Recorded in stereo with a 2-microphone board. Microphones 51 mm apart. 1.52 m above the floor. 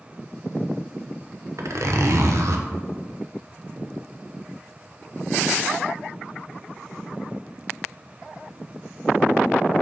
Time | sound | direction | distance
1.6 | a zipper | 65° right (ahead or behind) | 1.0 m